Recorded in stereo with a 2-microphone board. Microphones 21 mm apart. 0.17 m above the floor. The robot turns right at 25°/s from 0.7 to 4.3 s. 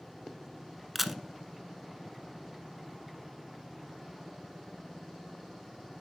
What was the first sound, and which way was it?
A camera shutter, 5° right (ahead or behind).